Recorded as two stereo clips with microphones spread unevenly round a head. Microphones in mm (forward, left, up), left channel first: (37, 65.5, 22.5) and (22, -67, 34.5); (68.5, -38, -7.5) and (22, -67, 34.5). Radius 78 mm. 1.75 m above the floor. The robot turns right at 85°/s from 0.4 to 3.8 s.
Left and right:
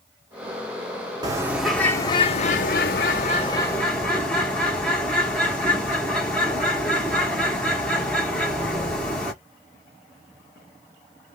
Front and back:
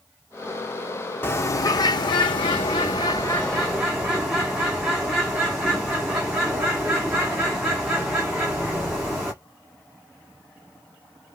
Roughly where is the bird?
Ahead right.